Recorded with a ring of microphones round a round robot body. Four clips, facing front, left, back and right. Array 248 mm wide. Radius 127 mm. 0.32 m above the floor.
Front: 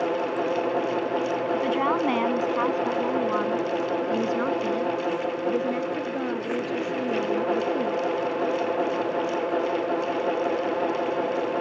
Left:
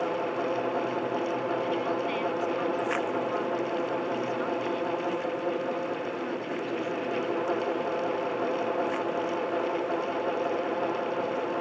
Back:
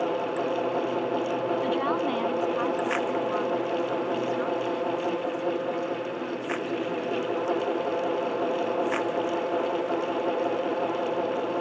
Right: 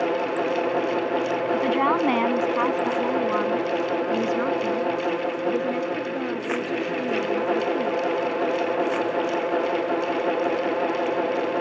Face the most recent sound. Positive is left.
turn(degrees=-40)